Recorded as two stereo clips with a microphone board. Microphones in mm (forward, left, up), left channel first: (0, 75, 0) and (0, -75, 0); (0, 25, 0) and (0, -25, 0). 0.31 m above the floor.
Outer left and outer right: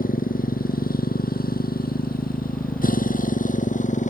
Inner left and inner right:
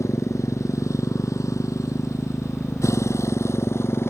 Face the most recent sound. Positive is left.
turn(degrees=55)  # may be behind; listen again after turning